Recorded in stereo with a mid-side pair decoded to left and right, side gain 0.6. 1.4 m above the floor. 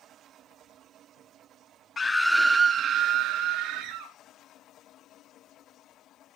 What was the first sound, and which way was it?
A scream, 25° left.